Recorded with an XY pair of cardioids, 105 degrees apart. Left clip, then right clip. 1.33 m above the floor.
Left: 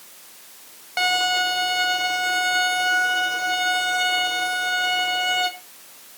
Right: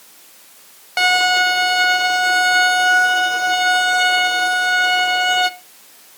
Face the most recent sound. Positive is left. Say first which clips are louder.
# right 6 dB
turn(degrees=-30)